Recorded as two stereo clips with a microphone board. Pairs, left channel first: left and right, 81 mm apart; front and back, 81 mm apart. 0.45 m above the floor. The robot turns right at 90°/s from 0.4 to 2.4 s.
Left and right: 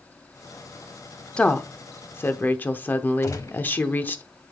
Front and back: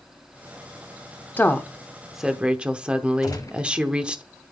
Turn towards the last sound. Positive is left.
turn(degrees=40)